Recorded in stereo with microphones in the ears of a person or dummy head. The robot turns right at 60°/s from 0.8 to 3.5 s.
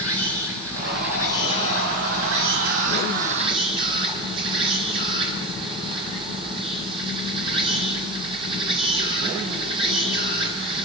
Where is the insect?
170° left, 8 m; by 10.9 s 30° right, 8 m.